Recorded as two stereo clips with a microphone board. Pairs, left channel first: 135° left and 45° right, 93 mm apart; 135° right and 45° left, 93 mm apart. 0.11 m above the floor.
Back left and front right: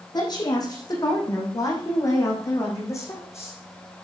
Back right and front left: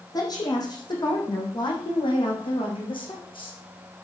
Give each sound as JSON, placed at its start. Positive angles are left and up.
{"t": 0.1, "sound": "a woman speaking", "azimuth_deg": 180, "distance_m": 5.5}